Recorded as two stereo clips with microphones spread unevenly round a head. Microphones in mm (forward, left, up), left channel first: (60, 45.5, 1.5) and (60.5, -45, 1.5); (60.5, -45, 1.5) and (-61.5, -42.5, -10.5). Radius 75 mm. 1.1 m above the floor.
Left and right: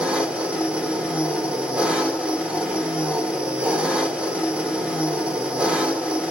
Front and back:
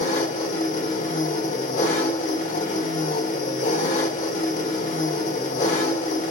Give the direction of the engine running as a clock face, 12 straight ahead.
12 o'clock.